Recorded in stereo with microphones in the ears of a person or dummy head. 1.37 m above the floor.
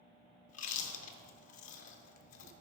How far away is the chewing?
About 1.0 m.